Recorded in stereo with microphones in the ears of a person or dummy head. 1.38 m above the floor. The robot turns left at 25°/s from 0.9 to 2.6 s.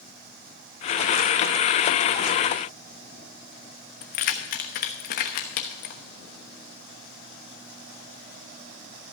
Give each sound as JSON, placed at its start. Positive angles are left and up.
{"t": 4.0, "sound": "keys jangling", "side_deg": 55, "distance_m": 1.1}